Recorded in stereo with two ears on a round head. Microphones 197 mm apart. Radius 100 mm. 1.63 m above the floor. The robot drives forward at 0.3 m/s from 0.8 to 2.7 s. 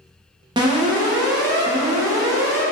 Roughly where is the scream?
No scream in this recording.